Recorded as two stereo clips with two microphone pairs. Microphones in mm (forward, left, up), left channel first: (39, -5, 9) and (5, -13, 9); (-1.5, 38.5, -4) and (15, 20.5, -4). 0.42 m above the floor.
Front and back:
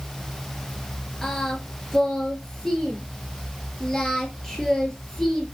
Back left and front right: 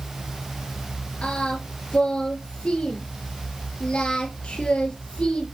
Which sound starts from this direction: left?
Singing, at 1.2 s.